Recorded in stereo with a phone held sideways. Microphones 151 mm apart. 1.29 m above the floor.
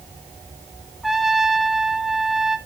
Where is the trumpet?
Centre (ahead or behind), 1.3 m.